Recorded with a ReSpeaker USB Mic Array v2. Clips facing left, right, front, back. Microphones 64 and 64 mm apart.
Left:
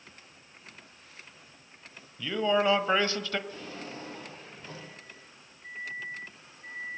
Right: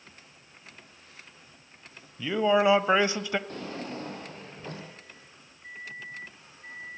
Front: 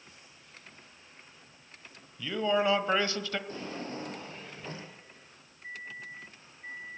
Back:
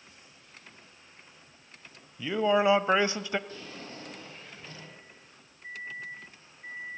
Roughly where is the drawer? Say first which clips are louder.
Right 4 dB, front 5 dB; ahead right.